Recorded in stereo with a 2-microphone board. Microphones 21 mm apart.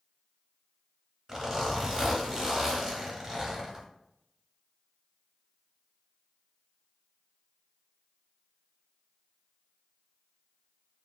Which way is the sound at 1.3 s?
30° right (ahead or behind).